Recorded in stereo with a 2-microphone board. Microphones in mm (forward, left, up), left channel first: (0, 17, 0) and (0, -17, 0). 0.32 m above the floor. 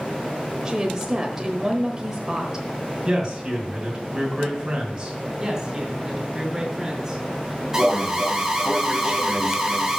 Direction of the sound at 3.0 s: 20° right (ahead or behind).